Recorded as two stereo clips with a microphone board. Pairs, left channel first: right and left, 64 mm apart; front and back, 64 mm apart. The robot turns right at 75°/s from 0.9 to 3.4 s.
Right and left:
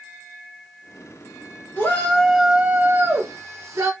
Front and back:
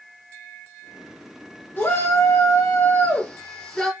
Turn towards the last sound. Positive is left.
turn(degrees=85)